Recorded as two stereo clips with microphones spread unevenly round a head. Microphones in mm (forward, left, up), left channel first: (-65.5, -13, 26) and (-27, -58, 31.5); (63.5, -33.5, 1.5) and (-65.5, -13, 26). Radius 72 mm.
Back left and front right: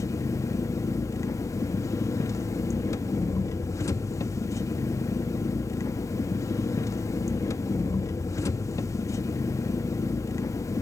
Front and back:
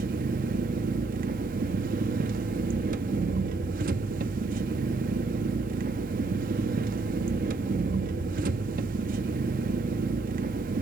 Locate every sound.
0.0 s an engine running: 160° left, 1.1 m